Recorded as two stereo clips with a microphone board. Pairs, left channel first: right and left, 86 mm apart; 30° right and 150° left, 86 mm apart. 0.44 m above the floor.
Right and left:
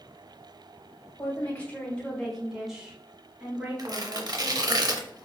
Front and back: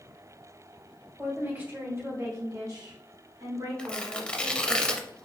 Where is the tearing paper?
50° left, 0.5 m.